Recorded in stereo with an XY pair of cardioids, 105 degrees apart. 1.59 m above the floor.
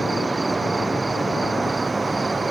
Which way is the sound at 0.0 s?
15° right.